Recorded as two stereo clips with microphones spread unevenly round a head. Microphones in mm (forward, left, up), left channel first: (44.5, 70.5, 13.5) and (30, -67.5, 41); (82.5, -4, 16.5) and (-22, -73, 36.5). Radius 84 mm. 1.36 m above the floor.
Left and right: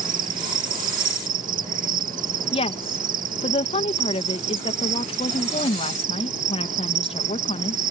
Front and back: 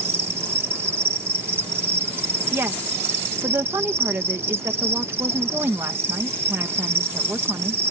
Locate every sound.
0.0 s an insect: 75° right
2.5 s a woman speaking: 135° left